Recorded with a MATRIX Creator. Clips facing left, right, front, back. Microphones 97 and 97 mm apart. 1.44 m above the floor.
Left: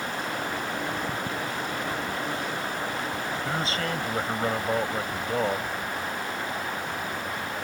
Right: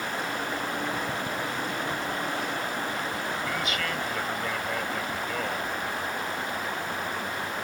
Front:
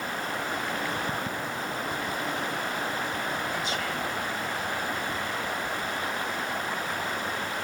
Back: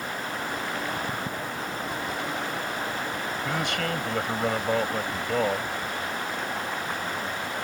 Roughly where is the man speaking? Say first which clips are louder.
Left 2 dB, back 3 dB; behind left.